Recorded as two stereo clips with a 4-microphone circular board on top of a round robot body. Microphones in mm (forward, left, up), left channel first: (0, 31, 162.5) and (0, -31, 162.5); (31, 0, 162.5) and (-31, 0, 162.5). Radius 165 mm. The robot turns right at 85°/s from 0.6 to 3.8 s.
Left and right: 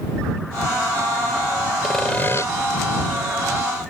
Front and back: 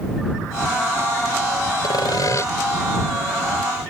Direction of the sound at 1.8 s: 5° right.